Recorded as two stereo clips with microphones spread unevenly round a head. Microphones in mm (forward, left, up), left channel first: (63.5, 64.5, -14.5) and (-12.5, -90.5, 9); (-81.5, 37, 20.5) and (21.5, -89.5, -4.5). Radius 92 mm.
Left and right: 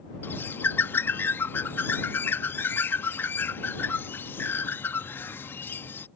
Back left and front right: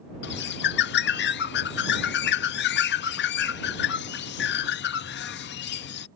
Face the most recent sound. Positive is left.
turn(degrees=145)